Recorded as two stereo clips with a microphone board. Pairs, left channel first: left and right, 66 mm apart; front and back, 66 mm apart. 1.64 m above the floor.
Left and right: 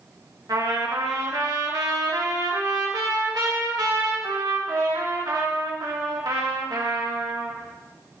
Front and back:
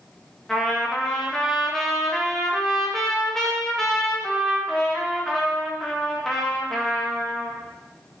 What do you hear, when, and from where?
0.5 s a trumpet: 85° right, 2.5 m